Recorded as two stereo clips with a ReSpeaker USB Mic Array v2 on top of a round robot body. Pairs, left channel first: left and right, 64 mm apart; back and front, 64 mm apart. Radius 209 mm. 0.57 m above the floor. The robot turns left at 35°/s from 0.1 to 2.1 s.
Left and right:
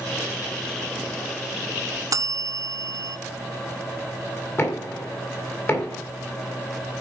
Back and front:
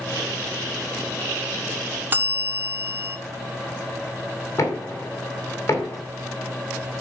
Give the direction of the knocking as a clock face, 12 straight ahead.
7 o'clock.